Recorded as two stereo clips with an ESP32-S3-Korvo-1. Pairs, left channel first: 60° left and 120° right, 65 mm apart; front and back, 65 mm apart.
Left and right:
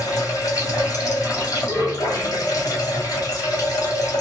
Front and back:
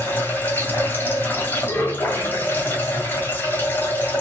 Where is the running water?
50° left, 1.7 m.